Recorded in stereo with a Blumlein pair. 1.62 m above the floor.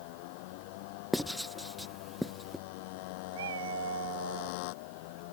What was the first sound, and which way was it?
A motorcycle, 45° left.